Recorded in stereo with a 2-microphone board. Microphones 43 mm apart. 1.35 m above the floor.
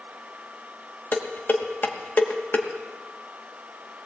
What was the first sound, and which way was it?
Dishes clattering, 45° left (ahead or behind).